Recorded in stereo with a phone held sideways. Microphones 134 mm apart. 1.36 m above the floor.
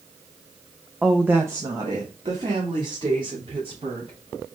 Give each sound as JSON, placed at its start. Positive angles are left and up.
{"t": 1.0, "sound": "a woman speaking", "side_deg": 0, "distance_m": 0.7}